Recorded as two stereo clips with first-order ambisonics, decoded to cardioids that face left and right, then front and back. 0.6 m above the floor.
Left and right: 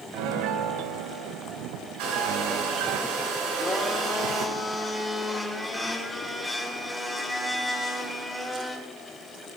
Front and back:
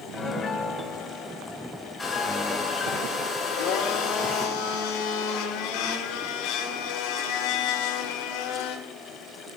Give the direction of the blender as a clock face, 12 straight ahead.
12 o'clock.